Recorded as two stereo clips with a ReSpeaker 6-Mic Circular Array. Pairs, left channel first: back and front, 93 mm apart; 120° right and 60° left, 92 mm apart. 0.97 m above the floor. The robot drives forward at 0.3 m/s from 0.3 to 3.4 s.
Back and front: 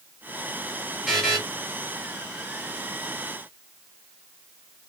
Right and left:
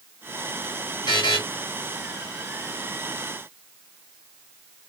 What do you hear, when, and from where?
1.1 s a buzzer: 90° right, 1.6 m